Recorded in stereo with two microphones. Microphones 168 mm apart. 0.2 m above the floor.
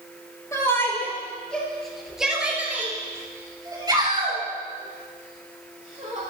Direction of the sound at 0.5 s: 20° left (ahead or behind).